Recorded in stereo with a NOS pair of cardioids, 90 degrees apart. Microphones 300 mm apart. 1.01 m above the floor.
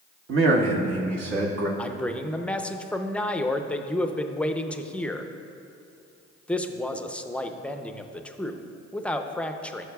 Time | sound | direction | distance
0.3 | a man speaking | 50° right | 1.1 m
1.8 | a man speaking | 5° left | 0.6 m